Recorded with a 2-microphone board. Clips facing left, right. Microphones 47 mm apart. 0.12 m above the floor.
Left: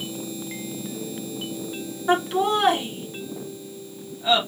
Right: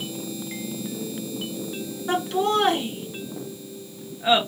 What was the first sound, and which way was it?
Laughter, 25° left (ahead or behind).